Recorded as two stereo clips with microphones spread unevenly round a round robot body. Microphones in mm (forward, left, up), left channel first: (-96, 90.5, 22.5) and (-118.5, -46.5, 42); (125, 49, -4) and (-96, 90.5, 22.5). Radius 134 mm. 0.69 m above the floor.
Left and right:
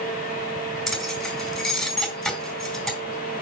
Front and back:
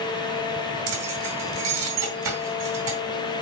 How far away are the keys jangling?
About 3.5 m.